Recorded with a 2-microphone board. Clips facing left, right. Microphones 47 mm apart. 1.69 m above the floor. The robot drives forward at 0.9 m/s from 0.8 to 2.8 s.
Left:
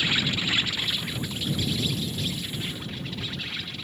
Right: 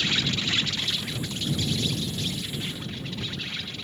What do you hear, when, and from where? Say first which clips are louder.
0.0 s an insect: left 1 dB; 10° left (ahead or behind); by 3.8 s 5° left (ahead or behind)